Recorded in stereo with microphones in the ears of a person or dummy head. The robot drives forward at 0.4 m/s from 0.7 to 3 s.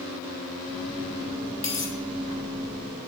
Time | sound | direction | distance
1.6 | a dropped coin | 10° left (ahead or behind) | 1.8 m